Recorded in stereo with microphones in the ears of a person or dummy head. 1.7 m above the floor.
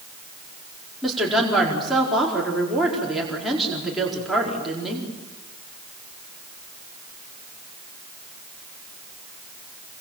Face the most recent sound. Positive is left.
turn(degrees=-5)  # may be behind; listen again after turning